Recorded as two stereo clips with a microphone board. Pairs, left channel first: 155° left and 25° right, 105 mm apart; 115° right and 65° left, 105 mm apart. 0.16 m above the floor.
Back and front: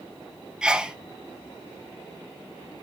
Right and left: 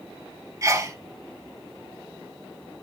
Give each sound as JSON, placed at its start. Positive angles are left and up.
{"t": 0.6, "sound": "a sneeze", "azimuth_deg": 50, "distance_m": 1.4}